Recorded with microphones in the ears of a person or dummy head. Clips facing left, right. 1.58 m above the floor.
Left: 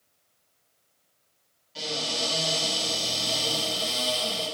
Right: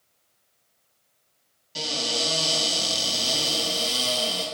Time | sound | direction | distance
1.8 | a cupboard door | 60° right (ahead or behind) | 2.5 m